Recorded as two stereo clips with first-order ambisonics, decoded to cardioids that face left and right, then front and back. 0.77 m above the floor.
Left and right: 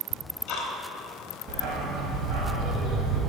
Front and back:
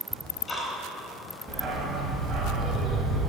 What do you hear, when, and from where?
0.1 s ticking: 75° left, 1.1 m
1.5 s a dog barking: 115° right, 1.0 m